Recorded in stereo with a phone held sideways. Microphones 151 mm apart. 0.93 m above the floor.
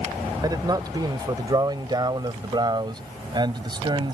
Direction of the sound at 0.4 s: 25° right (ahead or behind).